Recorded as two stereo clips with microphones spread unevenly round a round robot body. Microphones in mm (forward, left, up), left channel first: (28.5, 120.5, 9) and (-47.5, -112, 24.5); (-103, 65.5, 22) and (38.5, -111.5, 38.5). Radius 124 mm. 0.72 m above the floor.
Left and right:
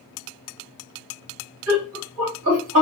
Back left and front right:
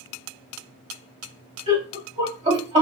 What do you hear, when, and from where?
1.7 s laughter: 115° right, 1.8 m